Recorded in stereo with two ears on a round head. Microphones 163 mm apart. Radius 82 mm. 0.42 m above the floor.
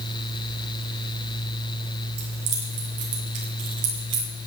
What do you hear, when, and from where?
2.2 s keys jangling: 70° right (ahead or behind), 6 m; by 4.3 s 80° right, 7 m